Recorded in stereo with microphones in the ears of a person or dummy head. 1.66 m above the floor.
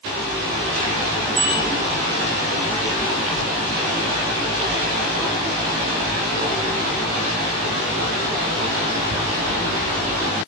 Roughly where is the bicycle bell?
Right.